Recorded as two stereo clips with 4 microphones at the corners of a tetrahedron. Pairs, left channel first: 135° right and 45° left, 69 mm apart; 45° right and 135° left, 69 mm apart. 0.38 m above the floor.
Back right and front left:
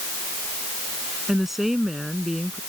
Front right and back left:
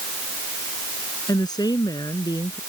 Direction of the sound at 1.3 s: 45° right.